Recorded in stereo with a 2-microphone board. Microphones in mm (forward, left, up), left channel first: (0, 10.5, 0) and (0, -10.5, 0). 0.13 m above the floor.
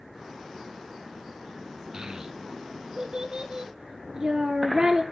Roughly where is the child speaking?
Right.